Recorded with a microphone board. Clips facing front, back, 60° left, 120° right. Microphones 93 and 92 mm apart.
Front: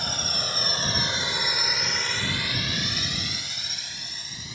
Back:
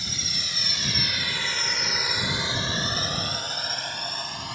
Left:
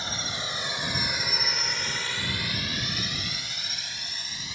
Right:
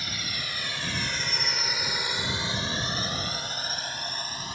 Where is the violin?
No violin in this recording.